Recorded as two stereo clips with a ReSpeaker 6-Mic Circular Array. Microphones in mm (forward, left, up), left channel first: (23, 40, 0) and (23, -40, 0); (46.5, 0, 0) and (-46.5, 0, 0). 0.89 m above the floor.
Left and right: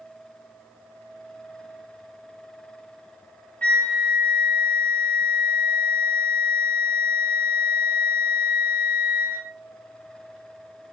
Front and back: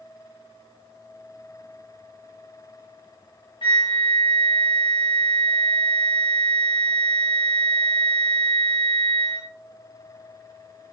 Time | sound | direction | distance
3.6 | a flute | 20° left | 0.8 m